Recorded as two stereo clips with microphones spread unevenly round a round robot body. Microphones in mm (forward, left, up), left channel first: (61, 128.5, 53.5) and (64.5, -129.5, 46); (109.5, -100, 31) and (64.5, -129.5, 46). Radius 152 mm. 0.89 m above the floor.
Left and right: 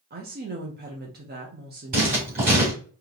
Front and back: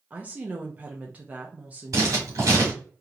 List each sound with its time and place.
0.1 s a woman speaking: 80° right, 0.9 m
1.9 s writing: 155° right, 2.5 m